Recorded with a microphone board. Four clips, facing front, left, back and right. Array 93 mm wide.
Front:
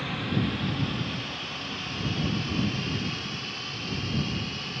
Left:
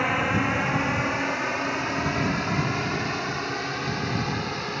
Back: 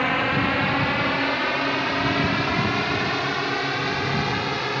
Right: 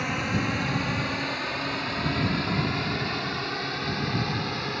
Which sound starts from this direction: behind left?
A drone, at 0.0 s.